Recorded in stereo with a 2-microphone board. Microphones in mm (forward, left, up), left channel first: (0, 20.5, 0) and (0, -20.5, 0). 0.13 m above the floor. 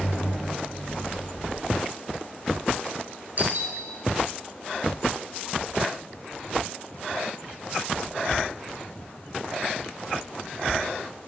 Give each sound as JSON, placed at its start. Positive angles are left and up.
{"t": 3.4, "sound": "a doorbell", "side_deg": -50, "distance_m": 2.5}